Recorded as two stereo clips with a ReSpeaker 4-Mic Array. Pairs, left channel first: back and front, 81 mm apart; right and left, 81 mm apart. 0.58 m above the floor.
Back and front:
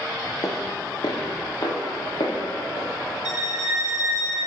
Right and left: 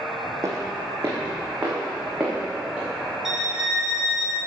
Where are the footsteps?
140° left, 1.6 m; by 2.9 s 165° left, 3.5 m.